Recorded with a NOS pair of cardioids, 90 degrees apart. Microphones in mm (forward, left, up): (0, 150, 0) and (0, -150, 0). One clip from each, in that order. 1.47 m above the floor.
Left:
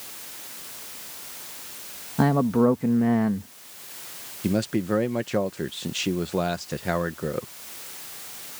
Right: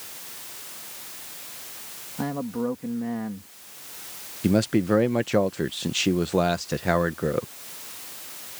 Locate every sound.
2.2 s a man speaking: 55° left
4.4 s a man speaking: 20° right